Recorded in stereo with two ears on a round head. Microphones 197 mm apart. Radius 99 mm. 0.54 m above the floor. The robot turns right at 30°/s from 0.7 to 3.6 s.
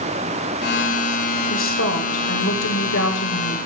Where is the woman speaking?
65° left, 1.8 m; by 3.7 s 130° left, 1.8 m.